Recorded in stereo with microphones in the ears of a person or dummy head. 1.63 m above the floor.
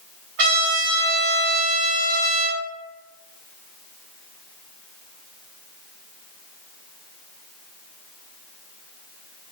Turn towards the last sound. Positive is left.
turn(degrees=-60)  # may be behind; listen again after turning